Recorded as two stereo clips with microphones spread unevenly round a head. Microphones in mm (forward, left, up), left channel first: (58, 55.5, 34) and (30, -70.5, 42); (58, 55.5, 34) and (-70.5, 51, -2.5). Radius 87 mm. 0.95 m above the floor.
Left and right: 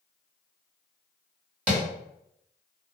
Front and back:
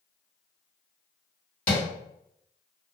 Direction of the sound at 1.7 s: 25° right.